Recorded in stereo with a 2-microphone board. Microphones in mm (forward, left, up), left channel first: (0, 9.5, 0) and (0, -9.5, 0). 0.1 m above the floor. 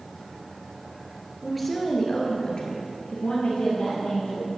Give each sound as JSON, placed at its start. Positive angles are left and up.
{"t": 1.4, "sound": "a woman speaking", "side_deg": 0, "distance_m": 2.0}